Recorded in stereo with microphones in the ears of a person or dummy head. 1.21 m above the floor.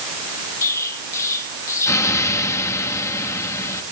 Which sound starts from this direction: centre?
An explosion, at 0.6 s.